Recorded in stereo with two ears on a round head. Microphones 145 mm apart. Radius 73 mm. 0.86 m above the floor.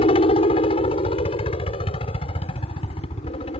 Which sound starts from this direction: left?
A helicopter, at 0.0 s.